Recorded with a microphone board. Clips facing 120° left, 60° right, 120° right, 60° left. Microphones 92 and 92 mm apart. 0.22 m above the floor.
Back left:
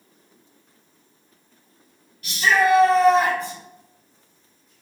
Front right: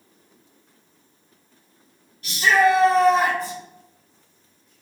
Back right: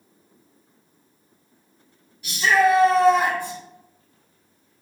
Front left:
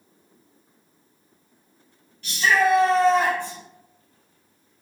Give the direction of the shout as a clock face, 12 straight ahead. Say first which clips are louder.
Front right 1 dB, back right 2 dB; 2 o'clock.